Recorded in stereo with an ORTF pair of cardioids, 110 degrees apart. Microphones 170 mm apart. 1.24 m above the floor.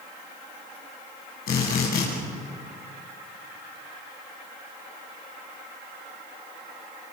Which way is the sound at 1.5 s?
60° left.